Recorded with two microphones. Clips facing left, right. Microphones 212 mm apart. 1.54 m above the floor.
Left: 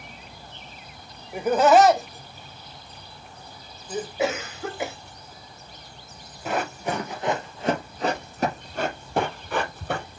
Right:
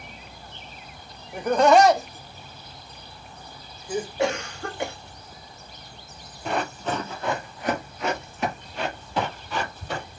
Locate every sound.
1.3 s laughter: 10° left (ahead or behind), 1.3 m; by 4.1 s 10° right (ahead or behind), 3 m
4.2 s a cough: 5° left (ahead or behind), 0.9 m
6.5 s running footsteps: 5° left (ahead or behind), 1.9 m; by 10.1 s 55° left (ahead or behind), 2.5 m